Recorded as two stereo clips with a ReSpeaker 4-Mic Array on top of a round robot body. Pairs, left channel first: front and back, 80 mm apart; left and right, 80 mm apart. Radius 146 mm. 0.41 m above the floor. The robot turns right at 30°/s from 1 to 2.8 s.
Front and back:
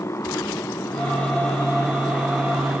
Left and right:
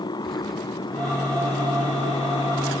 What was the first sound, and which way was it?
A motorcycle, 60° left.